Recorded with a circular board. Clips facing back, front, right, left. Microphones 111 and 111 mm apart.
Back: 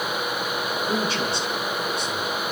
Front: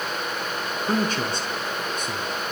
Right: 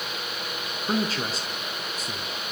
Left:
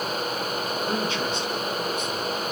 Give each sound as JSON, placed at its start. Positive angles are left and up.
{"t": 0.9, "sound": "a man speaking", "azimuth_deg": -40, "distance_m": 4.0}